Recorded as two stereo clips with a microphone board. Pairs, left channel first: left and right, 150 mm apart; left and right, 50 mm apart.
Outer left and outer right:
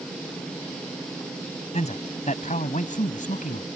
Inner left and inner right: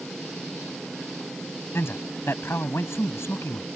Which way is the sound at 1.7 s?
50° left (ahead or behind).